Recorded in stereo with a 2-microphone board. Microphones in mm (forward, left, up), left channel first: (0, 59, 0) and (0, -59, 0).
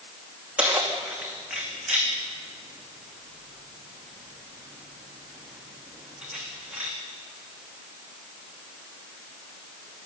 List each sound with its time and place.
0.6 s keys jangling: 10° right (ahead or behind), 4 m